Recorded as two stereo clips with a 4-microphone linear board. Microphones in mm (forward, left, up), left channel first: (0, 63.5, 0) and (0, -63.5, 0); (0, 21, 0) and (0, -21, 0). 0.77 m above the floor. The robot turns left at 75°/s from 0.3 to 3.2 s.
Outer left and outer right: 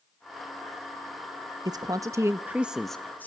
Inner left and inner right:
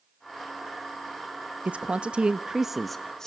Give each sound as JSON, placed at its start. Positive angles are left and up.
{"t": 1.6, "sound": "a man speaking", "azimuth_deg": -90, "distance_m": 0.7}